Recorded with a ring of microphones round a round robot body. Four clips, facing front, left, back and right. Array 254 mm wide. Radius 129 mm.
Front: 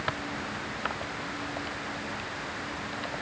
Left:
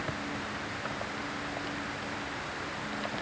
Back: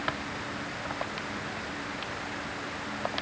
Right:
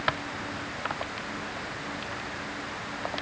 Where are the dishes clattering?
No dishes clattering in this recording.